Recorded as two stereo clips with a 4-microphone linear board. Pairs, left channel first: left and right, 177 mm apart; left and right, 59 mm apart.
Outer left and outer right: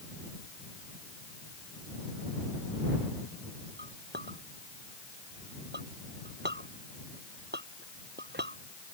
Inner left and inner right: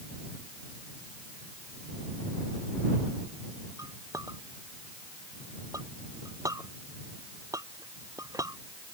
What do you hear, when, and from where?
3.8 s a clink: 75° right (ahead or behind)